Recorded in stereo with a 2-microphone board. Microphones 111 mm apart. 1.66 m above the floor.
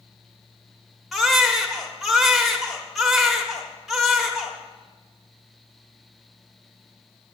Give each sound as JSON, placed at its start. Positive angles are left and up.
{"t": 1.1, "sound": "a baby crying", "side_deg": 0, "distance_m": 1.3}